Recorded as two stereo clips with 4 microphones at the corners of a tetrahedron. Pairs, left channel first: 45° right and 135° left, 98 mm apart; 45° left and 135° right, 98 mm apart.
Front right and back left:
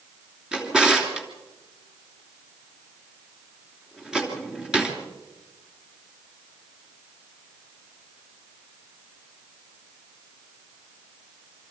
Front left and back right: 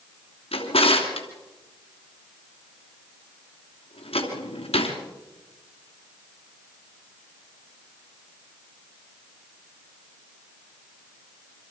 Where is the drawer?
50° left, 3 m.